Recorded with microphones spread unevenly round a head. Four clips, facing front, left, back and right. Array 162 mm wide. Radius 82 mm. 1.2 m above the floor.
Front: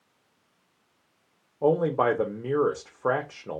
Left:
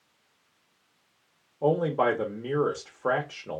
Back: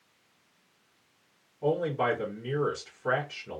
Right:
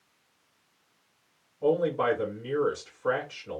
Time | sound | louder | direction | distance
1.6 | a man speaking | left 1 dB, front 5 dB | 30° left | 0.9 m